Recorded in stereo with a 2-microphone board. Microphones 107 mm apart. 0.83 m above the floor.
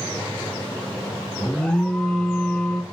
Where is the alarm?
5° left (ahead or behind), 0.7 m.